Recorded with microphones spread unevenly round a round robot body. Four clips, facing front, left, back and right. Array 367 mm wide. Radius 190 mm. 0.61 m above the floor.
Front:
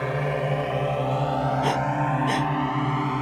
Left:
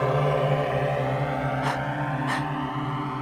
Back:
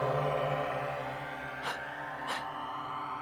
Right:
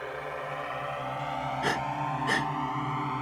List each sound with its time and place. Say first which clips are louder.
0.0 s a drone: left 13 dB, front 4 dB; 75° left; by 3.2 s 10° left
1.6 s breathing: left 2 dB, front 15 dB; 25° right